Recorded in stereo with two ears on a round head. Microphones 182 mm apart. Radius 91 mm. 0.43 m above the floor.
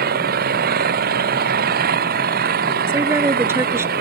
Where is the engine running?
45° right (ahead or behind).